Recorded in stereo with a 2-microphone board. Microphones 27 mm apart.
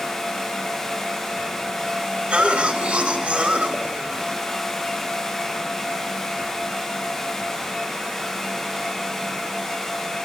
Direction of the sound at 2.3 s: 50° right (ahead or behind).